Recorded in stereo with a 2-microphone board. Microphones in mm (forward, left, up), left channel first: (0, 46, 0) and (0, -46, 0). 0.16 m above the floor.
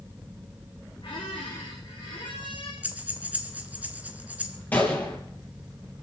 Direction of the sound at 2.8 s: 15° right (ahead or behind).